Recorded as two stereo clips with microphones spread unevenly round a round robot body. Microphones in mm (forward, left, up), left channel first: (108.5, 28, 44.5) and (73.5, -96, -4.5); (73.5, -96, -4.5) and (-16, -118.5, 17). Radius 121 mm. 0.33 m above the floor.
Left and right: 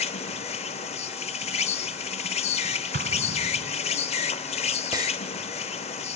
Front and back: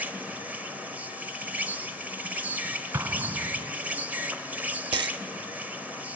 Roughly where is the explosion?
Right.